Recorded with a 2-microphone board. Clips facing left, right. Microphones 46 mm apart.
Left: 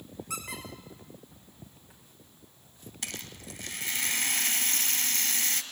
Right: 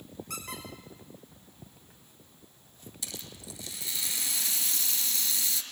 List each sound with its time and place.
0.3 s a squeak: 5° left (ahead or behind), 6 m
3.0 s a rattle: 50° left (ahead or behind), 2 m